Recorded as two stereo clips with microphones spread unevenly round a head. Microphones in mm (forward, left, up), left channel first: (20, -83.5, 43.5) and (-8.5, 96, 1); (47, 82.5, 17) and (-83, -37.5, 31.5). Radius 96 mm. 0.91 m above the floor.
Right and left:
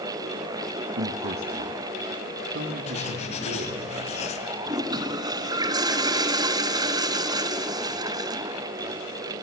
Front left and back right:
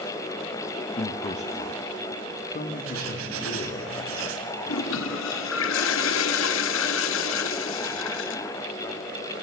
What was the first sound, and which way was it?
A man speaking, 90° left.